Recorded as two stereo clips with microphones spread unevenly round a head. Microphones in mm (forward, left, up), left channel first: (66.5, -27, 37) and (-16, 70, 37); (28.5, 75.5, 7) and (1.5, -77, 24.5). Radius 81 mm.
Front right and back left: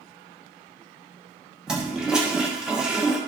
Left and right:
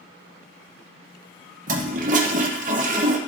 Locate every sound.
1.7 s a toilet flushing: 145° right, 0.9 m